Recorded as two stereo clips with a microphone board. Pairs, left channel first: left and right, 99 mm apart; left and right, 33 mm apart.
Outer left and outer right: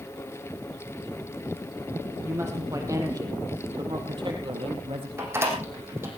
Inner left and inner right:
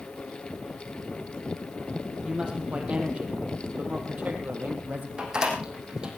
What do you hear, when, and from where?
2.2 s a woman speaking: 25° right (ahead or behind), 5 m; by 5.1 s 65° right (ahead or behind), 4.5 m
5.2 s a door slam: 25° right (ahead or behind), 4.5 m